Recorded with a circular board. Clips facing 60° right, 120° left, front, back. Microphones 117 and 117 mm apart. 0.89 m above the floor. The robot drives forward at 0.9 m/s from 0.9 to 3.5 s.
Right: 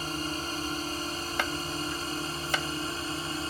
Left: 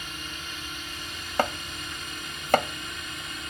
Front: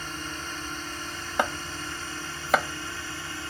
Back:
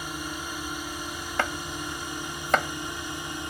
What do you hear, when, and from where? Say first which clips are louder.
0.0 s a drone: right 7 dB, back 2 dB; 105° right; by 3.5 s 110° right
1.4 s chopping: left 6 dB, front 2 dB; 75° left; by 3.5 s 95° left